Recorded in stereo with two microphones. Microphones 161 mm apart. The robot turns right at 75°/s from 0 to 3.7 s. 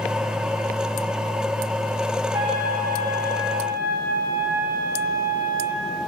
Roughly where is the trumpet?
Behind right.